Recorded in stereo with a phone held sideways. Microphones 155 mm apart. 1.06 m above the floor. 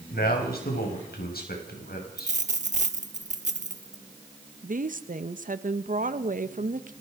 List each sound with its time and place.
0.1 s a man speaking: 80° left, 5.5 m; by 2.4 s 70° left (ahead or behind), 6.5 m
2.2 s a dropped coin: 50° right (ahead or behind), 1.0 m
4.6 s a woman speaking: 60° right (ahead or behind), 1.1 m